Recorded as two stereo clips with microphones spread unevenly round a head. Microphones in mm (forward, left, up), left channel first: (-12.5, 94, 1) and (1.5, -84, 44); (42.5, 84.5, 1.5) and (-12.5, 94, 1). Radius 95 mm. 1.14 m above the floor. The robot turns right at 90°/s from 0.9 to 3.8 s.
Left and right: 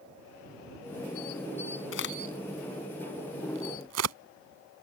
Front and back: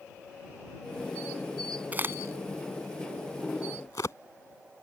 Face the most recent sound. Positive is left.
turn(degrees=-80)